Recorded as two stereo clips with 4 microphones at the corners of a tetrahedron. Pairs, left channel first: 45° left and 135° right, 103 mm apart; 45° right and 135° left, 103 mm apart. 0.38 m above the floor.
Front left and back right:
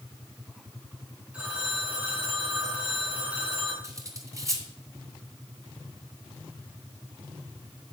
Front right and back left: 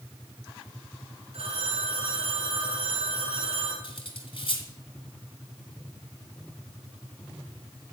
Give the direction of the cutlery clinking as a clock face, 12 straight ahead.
3 o'clock.